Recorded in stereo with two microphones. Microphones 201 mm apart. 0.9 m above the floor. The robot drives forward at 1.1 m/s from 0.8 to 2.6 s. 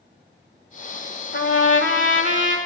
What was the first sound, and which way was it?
A trumpet, 65° left (ahead or behind).